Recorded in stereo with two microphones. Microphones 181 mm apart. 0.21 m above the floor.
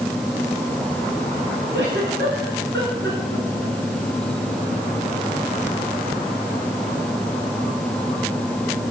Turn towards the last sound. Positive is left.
turn(degrees=-80)